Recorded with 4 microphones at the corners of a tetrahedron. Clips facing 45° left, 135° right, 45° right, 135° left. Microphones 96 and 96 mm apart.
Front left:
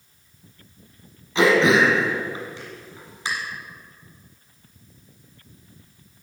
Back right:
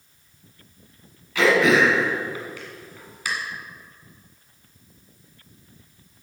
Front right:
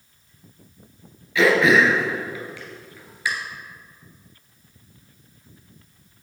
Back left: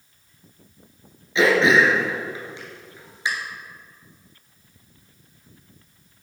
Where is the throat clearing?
90° left, 1.9 m.